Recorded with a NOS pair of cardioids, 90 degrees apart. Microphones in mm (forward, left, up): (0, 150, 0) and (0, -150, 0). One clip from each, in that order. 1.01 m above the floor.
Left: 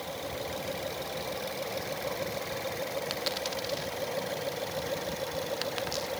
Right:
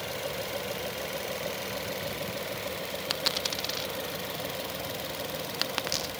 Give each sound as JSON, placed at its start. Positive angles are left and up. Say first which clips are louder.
{"t": 3.1, "sound": "a dropped coin", "louder": "right 3 dB", "azimuth_deg": -35, "distance_m": 0.8}